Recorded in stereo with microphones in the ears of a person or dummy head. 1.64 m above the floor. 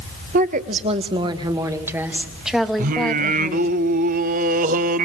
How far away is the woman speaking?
About 1.5 m.